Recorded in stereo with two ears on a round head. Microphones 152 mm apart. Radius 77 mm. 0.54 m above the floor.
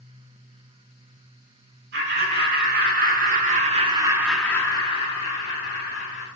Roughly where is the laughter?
Right.